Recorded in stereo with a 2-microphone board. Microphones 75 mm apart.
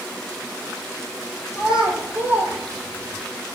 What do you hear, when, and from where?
1.5 s a child speaking: 5° right (ahead or behind), 2.5 m; by 3.3 s 45° right (ahead or behind), 2.5 m